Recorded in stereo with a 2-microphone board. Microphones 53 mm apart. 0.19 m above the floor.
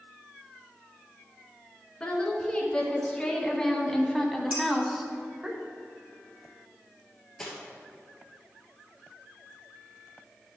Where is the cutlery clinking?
10° left (ahead or behind), 2.5 m.